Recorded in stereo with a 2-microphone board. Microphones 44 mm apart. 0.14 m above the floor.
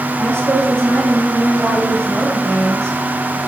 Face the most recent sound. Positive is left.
turn(degrees=-70)  # may be behind; listen again after turning